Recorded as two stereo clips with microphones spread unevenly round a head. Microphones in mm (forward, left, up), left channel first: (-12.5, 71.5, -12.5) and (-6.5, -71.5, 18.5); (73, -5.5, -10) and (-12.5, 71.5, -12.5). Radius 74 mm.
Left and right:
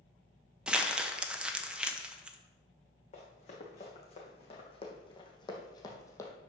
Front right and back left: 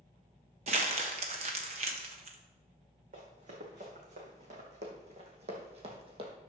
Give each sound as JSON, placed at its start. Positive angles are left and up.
{"t": 0.7, "sound": "crumpling", "azimuth_deg": -170, "distance_m": 0.9}
{"t": 3.1, "sound": "running footsteps", "azimuth_deg": 140, "distance_m": 4.5}